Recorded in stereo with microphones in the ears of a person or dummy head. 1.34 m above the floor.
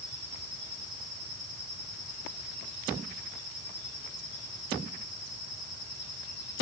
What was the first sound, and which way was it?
Only background noise.